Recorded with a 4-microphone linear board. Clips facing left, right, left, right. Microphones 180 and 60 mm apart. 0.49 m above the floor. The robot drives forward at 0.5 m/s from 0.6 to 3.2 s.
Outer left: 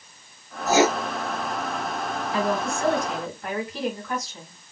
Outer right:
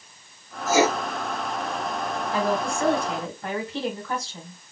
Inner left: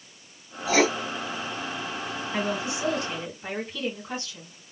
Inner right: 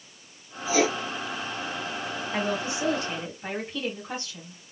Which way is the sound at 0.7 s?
65° left (ahead or behind).